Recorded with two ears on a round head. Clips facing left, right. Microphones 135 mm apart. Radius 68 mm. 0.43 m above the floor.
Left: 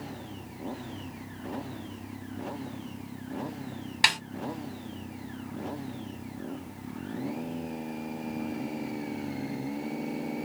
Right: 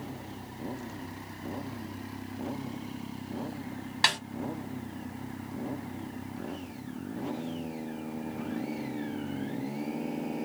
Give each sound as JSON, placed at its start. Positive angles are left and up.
{"t": 4.0, "sound": "a snare drum", "side_deg": 20, "distance_m": 2.0}